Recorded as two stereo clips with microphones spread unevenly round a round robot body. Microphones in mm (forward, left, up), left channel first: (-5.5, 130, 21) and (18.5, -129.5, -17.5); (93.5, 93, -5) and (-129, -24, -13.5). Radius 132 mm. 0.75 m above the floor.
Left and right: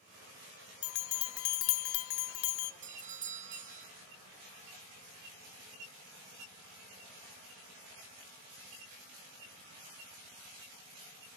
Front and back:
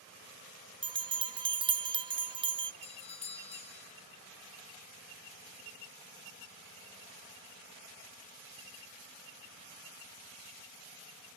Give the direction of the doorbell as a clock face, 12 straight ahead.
1 o'clock.